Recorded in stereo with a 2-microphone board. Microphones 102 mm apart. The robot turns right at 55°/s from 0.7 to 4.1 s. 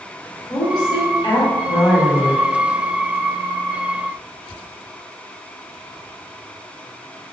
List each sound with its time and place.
0.5 s a woman speaking: 70° left, 1.9 m; by 2.5 s 170° left, 1.9 m